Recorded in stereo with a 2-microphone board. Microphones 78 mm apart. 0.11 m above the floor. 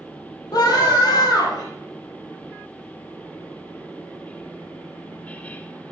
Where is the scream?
55° left (ahead or behind), 3 m.